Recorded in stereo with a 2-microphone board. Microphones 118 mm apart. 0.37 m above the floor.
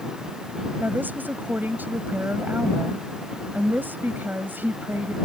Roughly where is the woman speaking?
Centre.